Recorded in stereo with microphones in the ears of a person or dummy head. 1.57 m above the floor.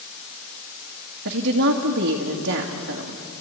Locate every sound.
1.2 s a woman speaking: 65° right (ahead or behind), 2 m